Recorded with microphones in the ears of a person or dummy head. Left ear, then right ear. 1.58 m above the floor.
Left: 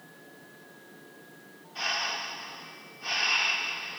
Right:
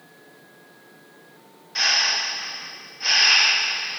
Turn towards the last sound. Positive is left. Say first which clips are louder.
# right 10 dB
turn(degrees=-60)  # may be behind; listen again after turning